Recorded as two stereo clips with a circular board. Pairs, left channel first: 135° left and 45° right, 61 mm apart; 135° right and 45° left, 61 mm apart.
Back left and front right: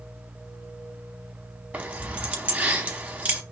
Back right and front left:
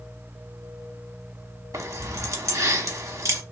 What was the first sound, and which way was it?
Keys jangling, 20° left.